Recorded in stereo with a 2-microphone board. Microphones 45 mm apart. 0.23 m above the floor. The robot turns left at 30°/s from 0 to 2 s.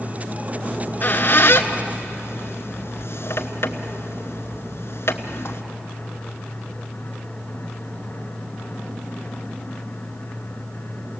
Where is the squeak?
40° left (ahead or behind), 1.2 m; by 5.6 s 70° left (ahead or behind), 1.2 m.